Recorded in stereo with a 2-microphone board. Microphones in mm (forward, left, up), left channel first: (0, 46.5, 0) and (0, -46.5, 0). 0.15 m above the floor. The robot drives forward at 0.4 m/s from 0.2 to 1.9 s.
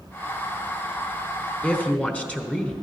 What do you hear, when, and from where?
1.6 s a woman speaking: 15° left (ahead or behind), 1.2 m